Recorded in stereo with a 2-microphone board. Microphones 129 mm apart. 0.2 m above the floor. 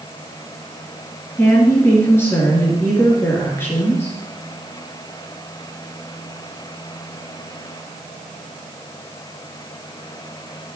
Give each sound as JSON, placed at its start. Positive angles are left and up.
{"t": 1.4, "sound": "a woman speaking", "side_deg": 15, "distance_m": 3.5}